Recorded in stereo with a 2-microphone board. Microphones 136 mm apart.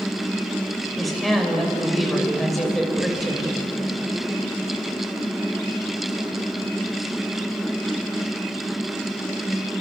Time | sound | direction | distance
1.0 | a woman speaking | centre (ahead or behind) | 5.5 m